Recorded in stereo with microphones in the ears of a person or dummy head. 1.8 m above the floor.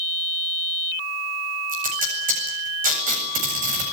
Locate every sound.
1.7 s tape being pulled: 40° right (ahead or behind), 8 m